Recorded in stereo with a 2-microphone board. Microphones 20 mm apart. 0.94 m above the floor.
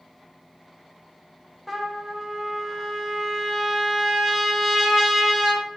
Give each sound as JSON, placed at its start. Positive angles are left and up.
{"t": 1.7, "sound": "a trumpet", "side_deg": -10, "distance_m": 0.8}